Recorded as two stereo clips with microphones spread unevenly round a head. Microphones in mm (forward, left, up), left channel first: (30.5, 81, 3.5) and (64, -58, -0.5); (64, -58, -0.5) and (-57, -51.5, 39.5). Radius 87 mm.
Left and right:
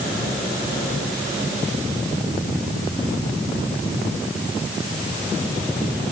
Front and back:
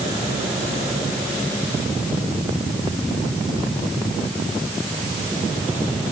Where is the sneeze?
No sneeze in this recording.